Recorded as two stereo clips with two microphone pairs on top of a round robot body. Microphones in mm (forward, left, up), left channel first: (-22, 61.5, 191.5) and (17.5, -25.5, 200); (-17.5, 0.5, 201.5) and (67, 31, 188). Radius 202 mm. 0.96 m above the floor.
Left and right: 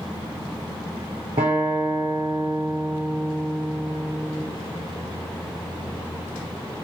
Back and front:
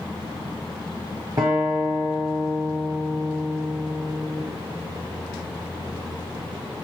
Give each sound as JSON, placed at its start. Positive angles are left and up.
{"t": 1.4, "sound": "a guitar", "azimuth_deg": -40, "distance_m": 0.7}